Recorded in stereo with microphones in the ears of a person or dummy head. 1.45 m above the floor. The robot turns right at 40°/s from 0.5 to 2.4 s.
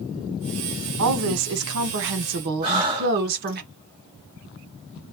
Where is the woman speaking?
105° right, 1.1 m; by 3.6 s 50° right, 1.1 m.